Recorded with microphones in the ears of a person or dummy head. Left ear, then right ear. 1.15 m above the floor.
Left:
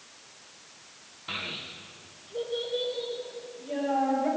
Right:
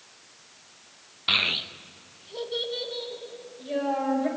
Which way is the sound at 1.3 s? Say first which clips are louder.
Right 11 dB; 75° right (ahead or behind).